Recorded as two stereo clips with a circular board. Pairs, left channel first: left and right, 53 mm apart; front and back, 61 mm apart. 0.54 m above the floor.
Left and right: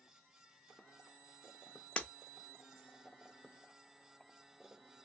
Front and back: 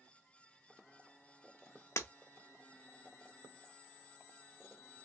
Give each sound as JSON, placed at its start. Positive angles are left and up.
{"t": 2.0, "sound": "breaking glass", "azimuth_deg": 25, "distance_m": 0.6}